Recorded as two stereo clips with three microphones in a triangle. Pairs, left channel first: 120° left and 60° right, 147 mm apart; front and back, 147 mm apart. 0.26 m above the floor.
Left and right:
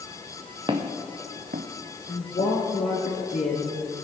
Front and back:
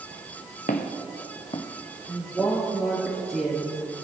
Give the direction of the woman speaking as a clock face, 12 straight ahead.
9 o'clock.